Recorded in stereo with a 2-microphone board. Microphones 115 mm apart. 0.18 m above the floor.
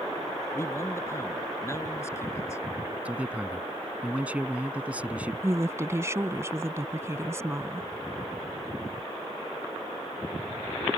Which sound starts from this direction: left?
A man speaking, at 0.5 s.